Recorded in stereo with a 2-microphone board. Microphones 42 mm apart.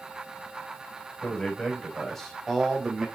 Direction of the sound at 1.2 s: 20° left (ahead or behind).